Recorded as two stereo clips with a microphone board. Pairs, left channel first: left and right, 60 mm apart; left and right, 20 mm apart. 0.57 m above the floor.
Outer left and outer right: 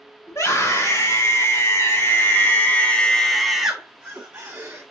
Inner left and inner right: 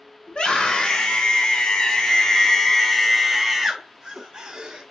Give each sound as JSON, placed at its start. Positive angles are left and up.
{"t": 0.3, "sound": "a scream", "side_deg": 60, "distance_m": 2.5}